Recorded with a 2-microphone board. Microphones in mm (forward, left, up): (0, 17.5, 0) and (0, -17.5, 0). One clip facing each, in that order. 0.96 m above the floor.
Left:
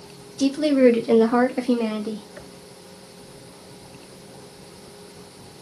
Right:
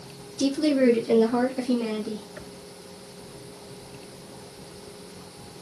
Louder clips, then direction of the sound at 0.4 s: Left 4 dB; 35° left (ahead or behind).